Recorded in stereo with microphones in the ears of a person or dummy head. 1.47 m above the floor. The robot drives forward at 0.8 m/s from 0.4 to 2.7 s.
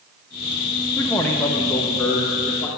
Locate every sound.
1.0 s a man speaking: 5° left (ahead or behind), 0.6 m; by 2.7 s centre (ahead or behind), 1.8 m